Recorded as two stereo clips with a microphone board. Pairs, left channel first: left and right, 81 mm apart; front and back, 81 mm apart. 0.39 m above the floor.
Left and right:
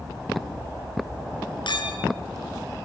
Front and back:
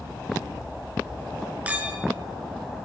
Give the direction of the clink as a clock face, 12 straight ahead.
8 o'clock.